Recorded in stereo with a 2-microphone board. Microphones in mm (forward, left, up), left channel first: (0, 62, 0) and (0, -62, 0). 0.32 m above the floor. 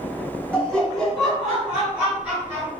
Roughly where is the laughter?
Centre.